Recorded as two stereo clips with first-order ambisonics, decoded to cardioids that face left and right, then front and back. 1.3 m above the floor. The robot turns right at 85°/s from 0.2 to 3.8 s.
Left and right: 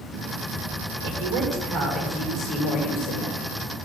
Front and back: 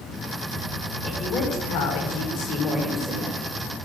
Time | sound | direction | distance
1.0 | a woman speaking | 90° right | 4.5 m